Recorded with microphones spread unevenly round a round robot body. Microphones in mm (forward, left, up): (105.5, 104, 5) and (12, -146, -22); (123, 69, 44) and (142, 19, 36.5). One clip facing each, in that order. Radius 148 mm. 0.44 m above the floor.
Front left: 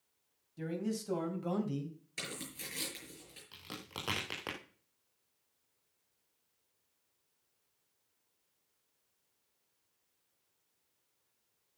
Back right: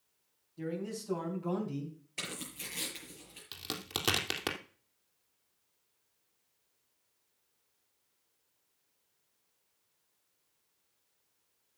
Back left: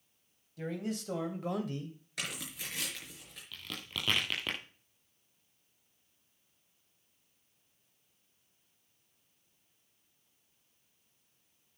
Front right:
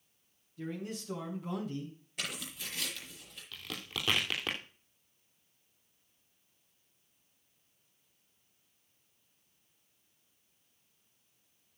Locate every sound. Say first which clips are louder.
0.6 s a man speaking: front left 1 dB, back left 3 dB; 120° left, 3.5 m; by 2.0 s 110° left, 2 m
2.2 s tearing paper: even, even; 140° left, 6 m
3.5 s a crack: back right 7 dB, front right 1 dB; 160° right, 2.5 m